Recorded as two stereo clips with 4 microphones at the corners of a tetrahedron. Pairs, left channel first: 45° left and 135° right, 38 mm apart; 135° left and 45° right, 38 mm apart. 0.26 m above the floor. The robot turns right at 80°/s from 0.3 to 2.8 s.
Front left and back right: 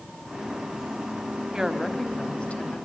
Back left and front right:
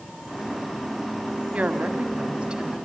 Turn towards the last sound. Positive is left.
turn(degrees=30)